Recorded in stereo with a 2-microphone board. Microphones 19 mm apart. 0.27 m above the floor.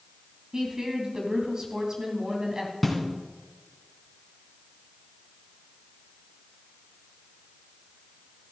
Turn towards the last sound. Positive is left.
turn(degrees=5)  # may be behind; listen again after turning